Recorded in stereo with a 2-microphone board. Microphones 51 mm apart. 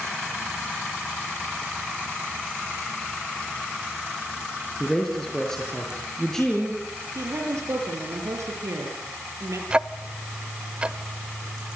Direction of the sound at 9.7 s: 20° right (ahead or behind).